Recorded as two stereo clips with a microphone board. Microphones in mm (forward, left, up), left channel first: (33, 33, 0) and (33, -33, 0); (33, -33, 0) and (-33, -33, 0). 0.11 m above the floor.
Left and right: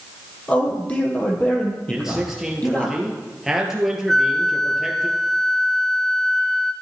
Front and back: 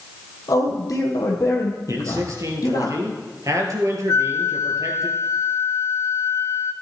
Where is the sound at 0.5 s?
20° left, 2.5 m.